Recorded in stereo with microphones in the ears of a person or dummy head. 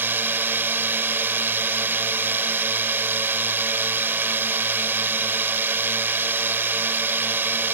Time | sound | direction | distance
0.0 | a drone | 10° right (ahead or behind) | ?